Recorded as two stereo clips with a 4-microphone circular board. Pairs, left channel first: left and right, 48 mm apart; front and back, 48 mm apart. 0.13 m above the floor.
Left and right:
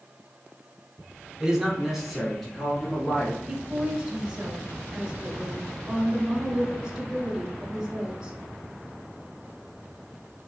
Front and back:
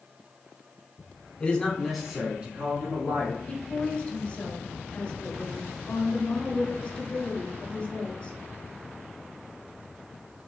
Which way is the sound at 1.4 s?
30° right.